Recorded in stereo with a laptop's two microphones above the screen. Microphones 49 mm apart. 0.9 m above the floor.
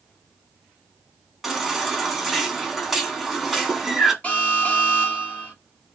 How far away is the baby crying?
About 1.1 m.